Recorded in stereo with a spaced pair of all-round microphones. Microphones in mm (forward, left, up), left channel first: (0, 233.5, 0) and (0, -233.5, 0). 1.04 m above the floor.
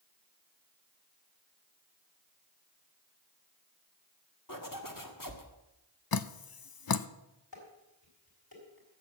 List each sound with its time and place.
4.5 s a zipper: 45° left (ahead or behind), 1.5 m
6.1 s dripping: 50° left (ahead or behind), 0.5 m
7.5 s dishes clattering: 50° left (ahead or behind), 4 m